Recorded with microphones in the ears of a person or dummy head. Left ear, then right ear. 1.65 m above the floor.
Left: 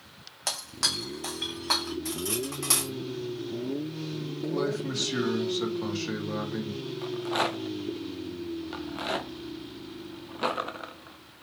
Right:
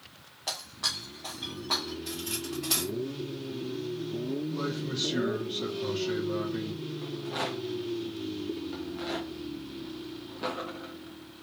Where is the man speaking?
75° left (ahead or behind), 3 m.